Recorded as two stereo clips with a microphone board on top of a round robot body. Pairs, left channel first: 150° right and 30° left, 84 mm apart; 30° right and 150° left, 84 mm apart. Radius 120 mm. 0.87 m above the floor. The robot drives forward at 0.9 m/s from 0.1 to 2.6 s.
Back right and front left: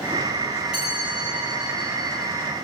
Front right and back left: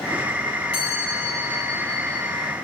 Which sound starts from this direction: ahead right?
A chime, at 0.7 s.